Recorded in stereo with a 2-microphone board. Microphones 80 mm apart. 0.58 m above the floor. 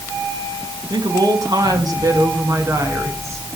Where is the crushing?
No crushing in this recording.